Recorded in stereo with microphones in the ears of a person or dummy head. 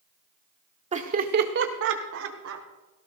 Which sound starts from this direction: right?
Laughter, at 0.9 s.